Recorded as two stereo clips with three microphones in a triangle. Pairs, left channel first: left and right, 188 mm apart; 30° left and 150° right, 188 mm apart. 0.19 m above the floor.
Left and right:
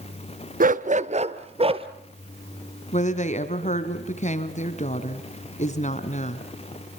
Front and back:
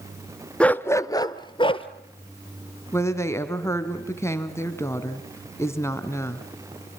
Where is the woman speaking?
100° left, 1.9 m.